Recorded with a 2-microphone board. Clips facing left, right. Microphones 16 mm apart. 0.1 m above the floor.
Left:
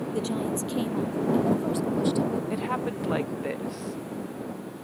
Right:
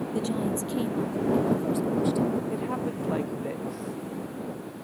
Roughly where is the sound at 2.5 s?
Left.